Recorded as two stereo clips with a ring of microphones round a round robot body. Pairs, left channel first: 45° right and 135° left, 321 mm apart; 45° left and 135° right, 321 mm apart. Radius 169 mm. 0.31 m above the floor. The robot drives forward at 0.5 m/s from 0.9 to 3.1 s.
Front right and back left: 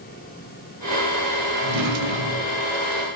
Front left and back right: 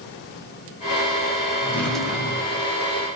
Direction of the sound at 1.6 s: 125° left.